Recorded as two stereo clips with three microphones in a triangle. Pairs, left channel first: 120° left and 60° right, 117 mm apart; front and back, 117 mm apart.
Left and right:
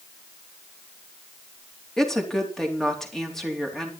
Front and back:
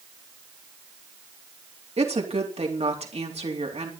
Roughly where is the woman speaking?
Behind right.